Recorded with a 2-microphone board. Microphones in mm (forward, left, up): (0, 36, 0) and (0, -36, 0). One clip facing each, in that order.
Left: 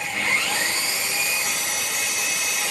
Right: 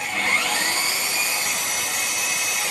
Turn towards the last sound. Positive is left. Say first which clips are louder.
# right 1 dB
turn(degrees=-75)  # may be behind; listen again after turning